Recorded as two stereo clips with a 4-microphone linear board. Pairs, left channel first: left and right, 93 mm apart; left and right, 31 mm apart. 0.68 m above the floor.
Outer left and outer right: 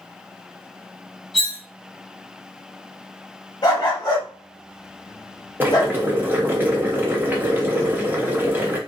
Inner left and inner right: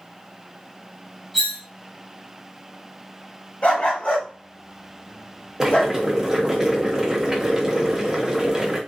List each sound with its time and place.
1.3 s cutlery clinking: 5° left (ahead or behind), 1.0 m
3.6 s a dog barking: 45° left (ahead or behind), 1.1 m
5.6 s boiling: 20° right (ahead or behind), 0.7 m